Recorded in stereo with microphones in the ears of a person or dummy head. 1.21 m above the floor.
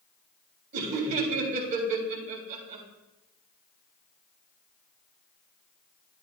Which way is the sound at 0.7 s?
45° right (ahead or behind).